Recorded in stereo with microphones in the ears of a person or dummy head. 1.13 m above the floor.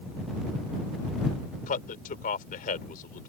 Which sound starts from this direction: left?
A man speaking, at 1.7 s.